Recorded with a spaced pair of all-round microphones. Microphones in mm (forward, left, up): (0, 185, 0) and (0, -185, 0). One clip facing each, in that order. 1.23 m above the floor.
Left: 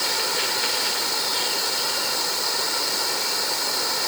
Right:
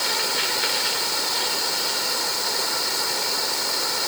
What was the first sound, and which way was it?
Only background noise.